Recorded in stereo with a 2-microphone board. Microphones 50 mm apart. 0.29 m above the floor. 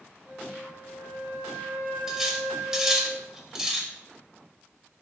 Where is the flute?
50° right (ahead or behind), 1.3 m.